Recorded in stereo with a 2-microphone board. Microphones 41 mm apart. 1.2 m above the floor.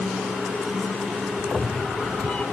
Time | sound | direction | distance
1.4 | a cat meowing | 30° left (ahead or behind) | ?